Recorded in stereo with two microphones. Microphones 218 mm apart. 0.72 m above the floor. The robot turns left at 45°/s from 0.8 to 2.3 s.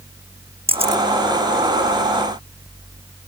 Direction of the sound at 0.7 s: 25° right (ahead or behind).